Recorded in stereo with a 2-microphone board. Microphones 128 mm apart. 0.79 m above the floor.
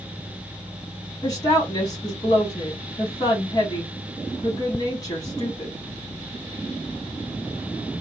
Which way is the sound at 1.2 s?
25° left (ahead or behind).